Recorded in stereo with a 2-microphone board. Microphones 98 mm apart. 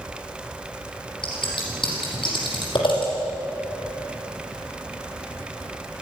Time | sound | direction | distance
1.2 | scissors | 55° left (ahead or behind) | 6 m